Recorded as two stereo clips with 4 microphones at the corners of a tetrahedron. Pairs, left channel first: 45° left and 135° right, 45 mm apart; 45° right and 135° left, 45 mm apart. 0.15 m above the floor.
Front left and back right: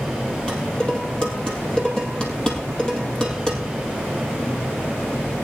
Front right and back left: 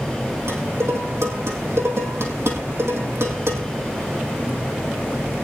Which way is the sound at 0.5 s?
120° left.